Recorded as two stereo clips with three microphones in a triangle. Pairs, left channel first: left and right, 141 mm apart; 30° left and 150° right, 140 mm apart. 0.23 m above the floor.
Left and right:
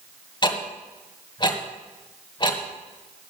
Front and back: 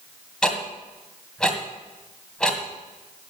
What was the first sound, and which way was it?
Ticking, 110° left.